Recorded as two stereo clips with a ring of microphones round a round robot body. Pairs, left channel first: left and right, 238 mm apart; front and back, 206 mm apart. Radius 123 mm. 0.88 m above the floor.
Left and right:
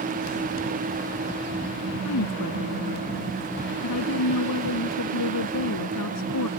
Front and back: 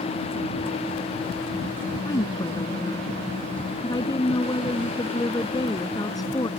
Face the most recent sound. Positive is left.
turn(degrees=70)